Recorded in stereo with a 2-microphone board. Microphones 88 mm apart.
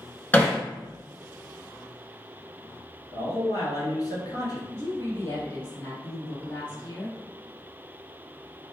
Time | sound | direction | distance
0.3 | hammering | 20° left (ahead or behind) | 1.1 m
3.1 | a man speaking | 45° left (ahead or behind) | 1.6 m
4.7 | a woman speaking | 25° left (ahead or behind) | 1.4 m